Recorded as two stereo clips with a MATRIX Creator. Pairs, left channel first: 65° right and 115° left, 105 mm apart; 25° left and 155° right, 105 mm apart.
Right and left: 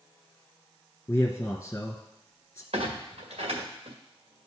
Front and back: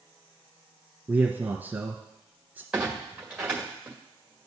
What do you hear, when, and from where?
1.1 s a man speaking: 105° right, 1.2 m
2.7 s a clunk: 120° left, 2 m